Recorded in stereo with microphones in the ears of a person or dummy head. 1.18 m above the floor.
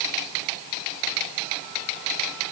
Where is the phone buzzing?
No phone buzzing in this recording.